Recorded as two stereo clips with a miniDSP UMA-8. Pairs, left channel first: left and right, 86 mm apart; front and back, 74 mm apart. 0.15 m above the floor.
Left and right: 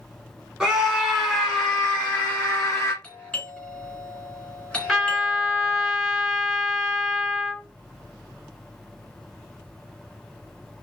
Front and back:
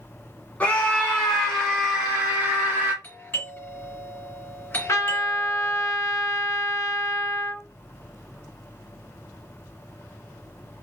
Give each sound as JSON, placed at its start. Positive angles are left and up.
{"t": 0.6, "sound": "a scream", "azimuth_deg": -25, "distance_m": 1.6}
{"t": 3.0, "sound": "a doorbell", "azimuth_deg": 25, "distance_m": 1.9}
{"t": 4.9, "sound": "a trumpet", "azimuth_deg": -5, "distance_m": 1.4}